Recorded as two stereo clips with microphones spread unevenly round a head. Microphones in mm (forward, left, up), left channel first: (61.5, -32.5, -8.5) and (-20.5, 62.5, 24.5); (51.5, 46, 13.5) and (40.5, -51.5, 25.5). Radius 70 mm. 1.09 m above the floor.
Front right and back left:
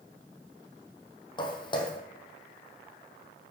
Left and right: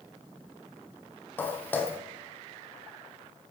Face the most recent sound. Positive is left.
turn(degrees=10)